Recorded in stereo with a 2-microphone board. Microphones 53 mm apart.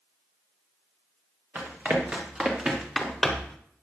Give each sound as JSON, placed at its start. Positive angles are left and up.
{"t": 1.6, "sound": "running footsteps", "side_deg": -35, "distance_m": 3.5}